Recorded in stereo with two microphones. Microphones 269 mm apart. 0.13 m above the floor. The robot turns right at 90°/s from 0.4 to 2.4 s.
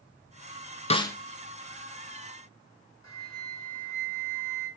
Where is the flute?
80° left, 2 m.